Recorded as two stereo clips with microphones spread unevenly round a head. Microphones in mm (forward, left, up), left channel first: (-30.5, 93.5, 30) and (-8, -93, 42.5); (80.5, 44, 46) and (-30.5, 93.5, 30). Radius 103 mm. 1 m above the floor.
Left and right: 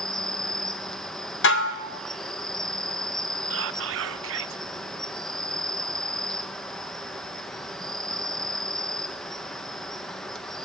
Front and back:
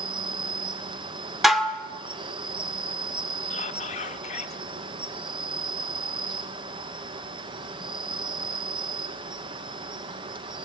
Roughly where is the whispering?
Right.